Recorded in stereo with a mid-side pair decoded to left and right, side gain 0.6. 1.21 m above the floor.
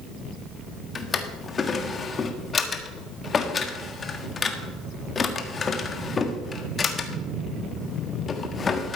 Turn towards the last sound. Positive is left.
turn(degrees=30)